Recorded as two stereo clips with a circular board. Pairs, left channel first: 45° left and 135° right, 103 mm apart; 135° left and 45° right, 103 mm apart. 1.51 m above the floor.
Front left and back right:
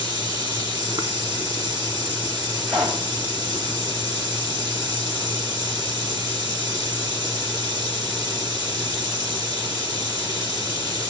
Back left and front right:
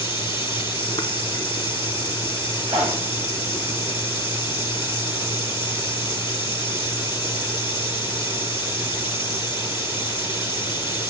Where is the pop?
95° right, 8.5 m.